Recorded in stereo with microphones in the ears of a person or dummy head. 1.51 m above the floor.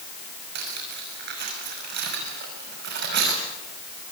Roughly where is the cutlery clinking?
Right.